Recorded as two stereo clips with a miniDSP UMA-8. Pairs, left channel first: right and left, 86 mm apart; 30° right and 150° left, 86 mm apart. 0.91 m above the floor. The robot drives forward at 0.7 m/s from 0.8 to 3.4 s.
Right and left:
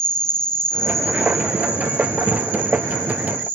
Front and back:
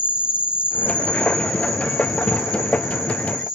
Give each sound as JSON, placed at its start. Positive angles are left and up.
{"t": 0.0, "sound": "an insect", "azimuth_deg": -135, "distance_m": 0.7}